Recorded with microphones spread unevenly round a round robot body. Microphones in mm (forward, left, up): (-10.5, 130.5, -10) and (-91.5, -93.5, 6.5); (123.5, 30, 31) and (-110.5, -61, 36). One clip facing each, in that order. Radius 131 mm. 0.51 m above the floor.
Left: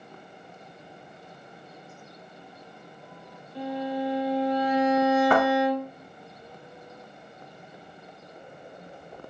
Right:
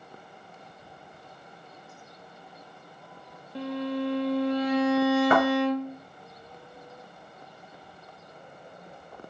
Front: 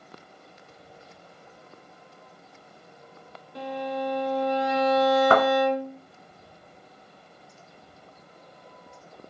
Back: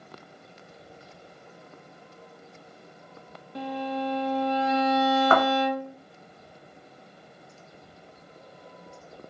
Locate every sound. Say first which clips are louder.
3.5 s a violin: even, even; 135° right, 0.7 m
5.3 s a thud: even, front 1 dB; 40° right, 1.5 m